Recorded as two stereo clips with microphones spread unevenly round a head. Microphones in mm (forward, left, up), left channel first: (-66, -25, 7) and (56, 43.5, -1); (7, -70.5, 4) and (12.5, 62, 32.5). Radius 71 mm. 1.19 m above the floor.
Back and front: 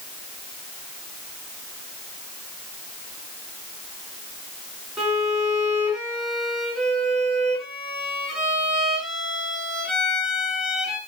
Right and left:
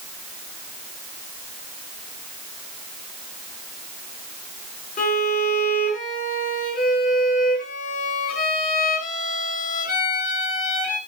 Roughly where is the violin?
Ahead right.